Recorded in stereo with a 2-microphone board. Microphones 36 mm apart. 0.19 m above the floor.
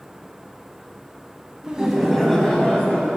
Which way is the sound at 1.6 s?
20° right (ahead or behind).